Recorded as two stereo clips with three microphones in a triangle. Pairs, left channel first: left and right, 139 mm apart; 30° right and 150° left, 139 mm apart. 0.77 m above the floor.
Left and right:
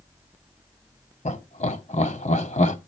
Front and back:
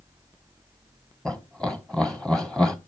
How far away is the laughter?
About 1.4 m.